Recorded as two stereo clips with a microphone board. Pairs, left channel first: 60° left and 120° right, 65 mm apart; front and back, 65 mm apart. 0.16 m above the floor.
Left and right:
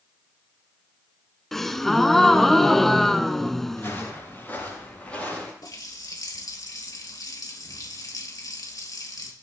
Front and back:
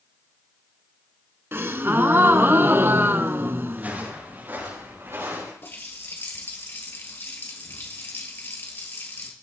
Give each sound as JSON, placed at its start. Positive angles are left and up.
{"t": 1.5, "sound": "a gasp", "azimuth_deg": 145, "distance_m": 0.6}
{"t": 3.7, "sound": "footsteps", "azimuth_deg": 115, "distance_m": 7.0}
{"t": 5.6, "sound": "a running tap", "azimuth_deg": 50, "distance_m": 2.5}